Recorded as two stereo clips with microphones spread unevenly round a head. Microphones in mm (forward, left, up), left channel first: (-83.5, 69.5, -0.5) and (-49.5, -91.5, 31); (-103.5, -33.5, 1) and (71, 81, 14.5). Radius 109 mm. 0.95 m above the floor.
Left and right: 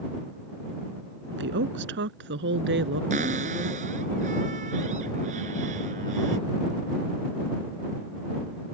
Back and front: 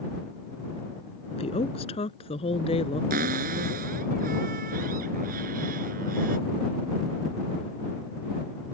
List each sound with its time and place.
1.3 s a woman speaking: 80° right
3.1 s a cupboard door: 20° right